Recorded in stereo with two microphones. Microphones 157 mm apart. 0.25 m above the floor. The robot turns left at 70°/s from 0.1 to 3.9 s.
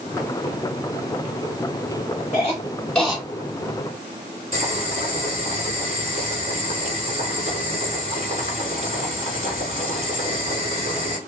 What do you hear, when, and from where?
2.3 s a cough: 45° left (ahead or behind), 4 m; by 3.2 s 10° right (ahead or behind), 4 m
4.5 s boiling: 50° right (ahead or behind), 4 m